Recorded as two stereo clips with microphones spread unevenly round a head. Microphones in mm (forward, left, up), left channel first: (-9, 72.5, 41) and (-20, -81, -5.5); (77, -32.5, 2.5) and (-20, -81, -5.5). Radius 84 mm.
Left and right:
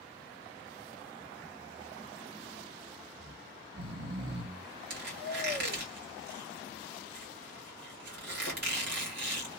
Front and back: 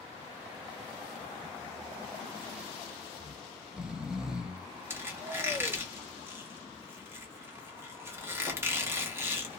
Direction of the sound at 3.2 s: 65° right.